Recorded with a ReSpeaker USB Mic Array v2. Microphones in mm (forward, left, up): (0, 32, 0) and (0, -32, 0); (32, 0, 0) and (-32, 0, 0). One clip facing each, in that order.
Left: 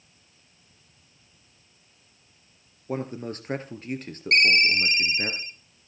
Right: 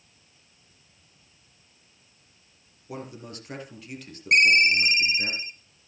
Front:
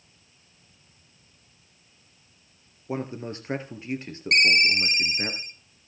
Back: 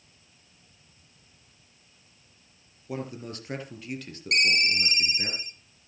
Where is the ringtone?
25° right, 0.8 m.